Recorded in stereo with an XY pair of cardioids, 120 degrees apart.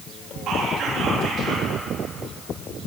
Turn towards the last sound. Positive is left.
turn(degrees=-65)